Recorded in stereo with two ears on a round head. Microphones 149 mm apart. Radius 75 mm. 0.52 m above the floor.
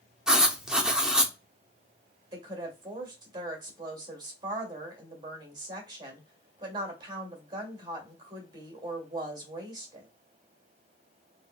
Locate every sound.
0.3 s writing: 5° right (ahead or behind), 0.6 m
2.3 s a woman speaking: 30° right (ahead or behind), 1.9 m